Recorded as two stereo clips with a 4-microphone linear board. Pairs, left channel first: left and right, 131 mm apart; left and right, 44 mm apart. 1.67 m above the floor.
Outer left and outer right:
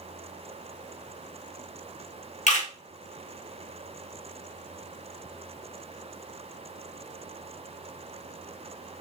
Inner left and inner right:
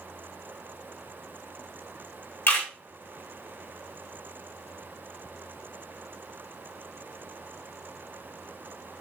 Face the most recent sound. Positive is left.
turn(degrees=60)  # may be behind; listen again after turning